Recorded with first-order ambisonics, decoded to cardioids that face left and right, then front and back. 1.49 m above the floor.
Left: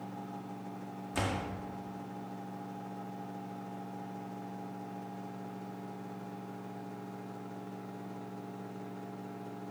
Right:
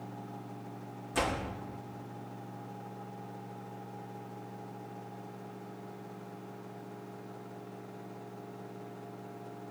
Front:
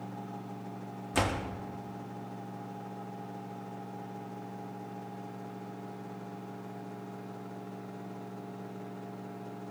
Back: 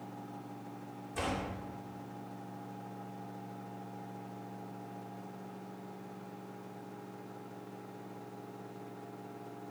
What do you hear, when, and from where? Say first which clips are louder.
1.1 s a door slam: right 3 dB, front 5 dB; 5° right, 1.9 m